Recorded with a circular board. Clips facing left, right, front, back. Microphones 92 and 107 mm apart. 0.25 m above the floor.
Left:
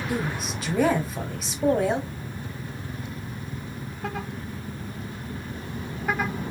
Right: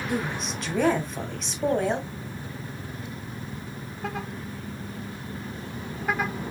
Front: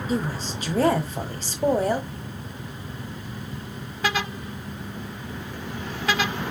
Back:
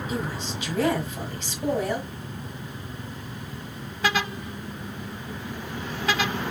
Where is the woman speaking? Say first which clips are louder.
Even, front 5 dB; 5° left, 1.5 m.